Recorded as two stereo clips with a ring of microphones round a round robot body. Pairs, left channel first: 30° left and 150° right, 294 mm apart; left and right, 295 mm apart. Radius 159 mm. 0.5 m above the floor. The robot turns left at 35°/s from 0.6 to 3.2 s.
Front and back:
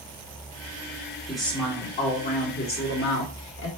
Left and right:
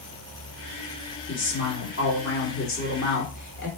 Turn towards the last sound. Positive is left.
turn(degrees=55)